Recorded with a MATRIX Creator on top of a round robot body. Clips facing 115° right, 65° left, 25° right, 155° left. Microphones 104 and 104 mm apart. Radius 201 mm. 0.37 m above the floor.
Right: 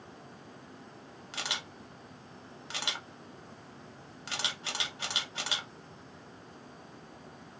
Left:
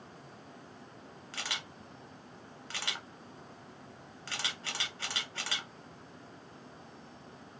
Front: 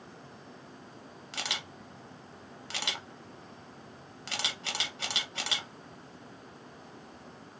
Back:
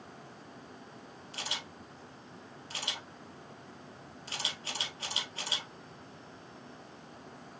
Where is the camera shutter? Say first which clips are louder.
Right 2 dB, front 3 dB; 40° right, 0.9 m.